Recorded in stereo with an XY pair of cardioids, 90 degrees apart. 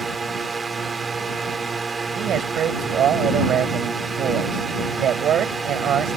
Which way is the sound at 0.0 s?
30° right.